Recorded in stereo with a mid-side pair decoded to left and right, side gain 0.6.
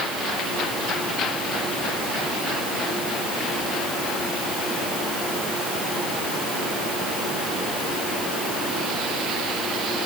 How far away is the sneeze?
No sneeze in this recording.